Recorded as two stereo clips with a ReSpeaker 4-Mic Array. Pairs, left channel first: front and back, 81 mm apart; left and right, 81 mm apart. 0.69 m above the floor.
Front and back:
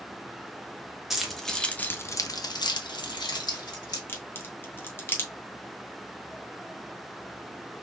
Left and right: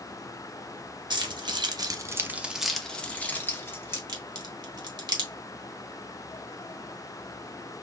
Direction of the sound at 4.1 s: 60° right.